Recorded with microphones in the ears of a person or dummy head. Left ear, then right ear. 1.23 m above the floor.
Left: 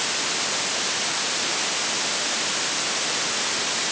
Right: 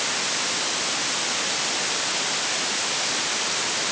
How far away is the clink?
No clink in this recording.